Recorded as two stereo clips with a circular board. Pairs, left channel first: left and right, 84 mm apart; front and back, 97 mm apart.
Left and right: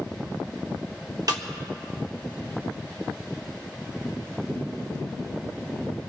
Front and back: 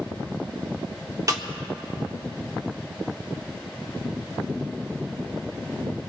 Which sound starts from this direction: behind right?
A snare drum, at 1.3 s.